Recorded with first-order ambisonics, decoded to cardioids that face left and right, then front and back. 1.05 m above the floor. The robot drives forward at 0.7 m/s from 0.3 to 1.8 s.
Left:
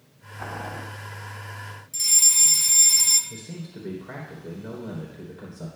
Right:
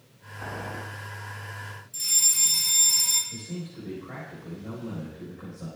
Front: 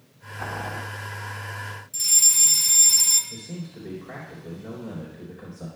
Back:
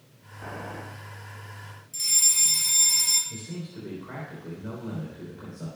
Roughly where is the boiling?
Ahead left.